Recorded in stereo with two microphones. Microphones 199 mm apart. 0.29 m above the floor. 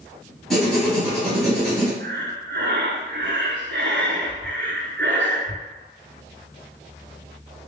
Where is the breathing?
65° right (ahead or behind), 1.0 m.